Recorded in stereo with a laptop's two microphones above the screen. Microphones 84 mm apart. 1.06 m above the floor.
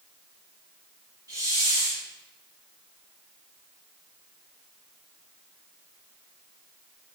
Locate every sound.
1.3 s a hiss: 45° right (ahead or behind), 1.9 m